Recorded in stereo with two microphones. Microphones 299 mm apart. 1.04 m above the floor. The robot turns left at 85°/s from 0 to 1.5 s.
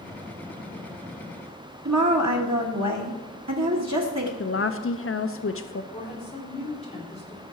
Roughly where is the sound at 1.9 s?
Right.